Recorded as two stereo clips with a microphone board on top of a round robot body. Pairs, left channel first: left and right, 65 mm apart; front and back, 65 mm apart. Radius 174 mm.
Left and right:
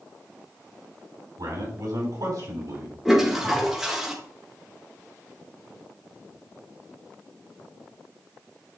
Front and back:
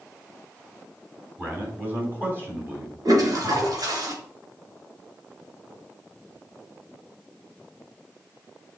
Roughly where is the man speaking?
Behind right.